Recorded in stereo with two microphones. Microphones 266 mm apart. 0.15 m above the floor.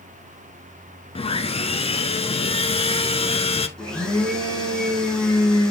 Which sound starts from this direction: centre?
A blender, at 3.8 s.